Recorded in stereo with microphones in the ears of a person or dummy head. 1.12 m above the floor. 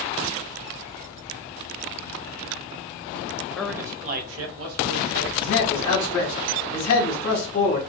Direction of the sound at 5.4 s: 60° left (ahead or behind).